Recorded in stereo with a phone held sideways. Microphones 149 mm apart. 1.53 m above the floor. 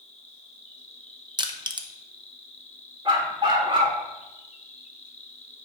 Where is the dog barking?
35° right (ahead or behind), 1.4 m.